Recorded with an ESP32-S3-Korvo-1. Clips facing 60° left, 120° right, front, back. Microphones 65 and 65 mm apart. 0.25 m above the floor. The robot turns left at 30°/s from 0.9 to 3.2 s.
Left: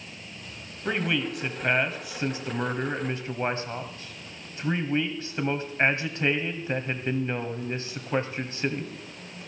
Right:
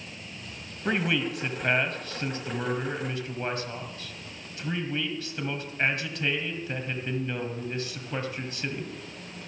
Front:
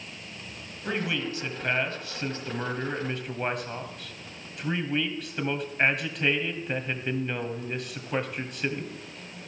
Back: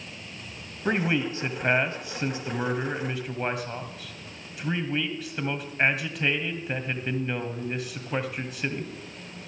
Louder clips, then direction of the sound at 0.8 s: Even, back 5 dB; 165° left.